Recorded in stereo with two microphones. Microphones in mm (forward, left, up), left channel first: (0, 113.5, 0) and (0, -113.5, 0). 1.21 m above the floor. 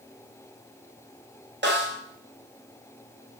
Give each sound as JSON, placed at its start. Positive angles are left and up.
{"t": 1.6, "sound": "a snare drum", "side_deg": -50, "distance_m": 0.7}